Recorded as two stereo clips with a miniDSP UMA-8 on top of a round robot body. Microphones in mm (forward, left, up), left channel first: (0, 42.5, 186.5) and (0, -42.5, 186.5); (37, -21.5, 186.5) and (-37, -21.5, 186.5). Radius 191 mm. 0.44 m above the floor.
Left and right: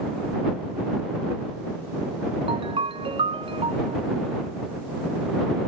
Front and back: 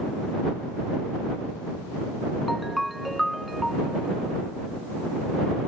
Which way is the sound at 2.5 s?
90° right.